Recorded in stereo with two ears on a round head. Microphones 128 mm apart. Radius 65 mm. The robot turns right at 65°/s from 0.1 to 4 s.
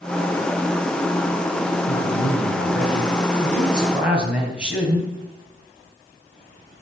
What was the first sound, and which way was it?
A man speaking, 50° left.